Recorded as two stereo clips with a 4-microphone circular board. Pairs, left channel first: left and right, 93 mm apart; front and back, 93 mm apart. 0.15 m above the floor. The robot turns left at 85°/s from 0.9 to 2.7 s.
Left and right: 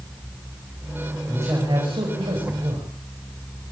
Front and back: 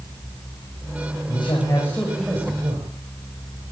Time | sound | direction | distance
1.3 | a man speaking | 15° right | 7.5 m